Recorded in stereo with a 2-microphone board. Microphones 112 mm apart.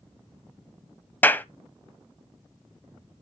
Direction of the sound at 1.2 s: 15° left (ahead or behind).